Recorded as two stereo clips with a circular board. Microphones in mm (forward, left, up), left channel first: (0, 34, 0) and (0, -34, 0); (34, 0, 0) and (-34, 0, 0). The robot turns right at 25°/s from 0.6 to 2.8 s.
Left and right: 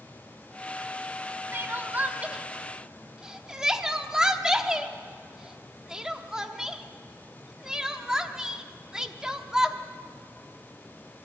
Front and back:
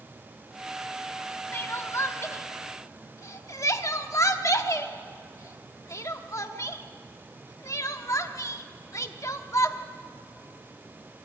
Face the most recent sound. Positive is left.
turn(degrees=-10)